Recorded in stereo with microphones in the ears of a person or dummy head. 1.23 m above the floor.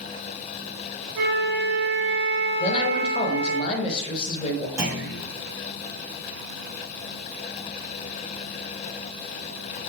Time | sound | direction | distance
1.1 | a flute | 55° right (ahead or behind) | 1.6 m
2.6 | a man speaking | 30° left (ahead or behind) | 1.1 m
4.8 | a clunk | 15° right (ahead or behind) | 1.5 m